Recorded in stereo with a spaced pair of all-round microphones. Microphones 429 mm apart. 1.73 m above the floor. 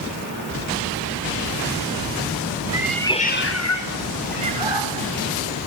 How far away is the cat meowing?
About 1.8 m.